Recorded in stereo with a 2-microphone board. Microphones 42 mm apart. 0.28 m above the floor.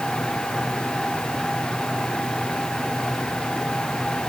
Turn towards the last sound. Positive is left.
No sound to turn to.